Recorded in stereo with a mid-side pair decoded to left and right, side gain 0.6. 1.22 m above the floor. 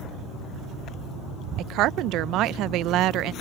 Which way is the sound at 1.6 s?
65° right.